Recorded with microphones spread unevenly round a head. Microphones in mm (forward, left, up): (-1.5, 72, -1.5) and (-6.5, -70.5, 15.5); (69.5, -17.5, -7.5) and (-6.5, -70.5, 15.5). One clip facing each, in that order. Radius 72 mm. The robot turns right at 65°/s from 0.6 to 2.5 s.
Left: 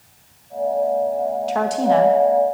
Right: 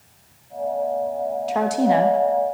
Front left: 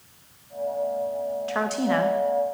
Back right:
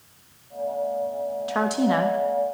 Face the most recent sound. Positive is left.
turn(degrees=-100)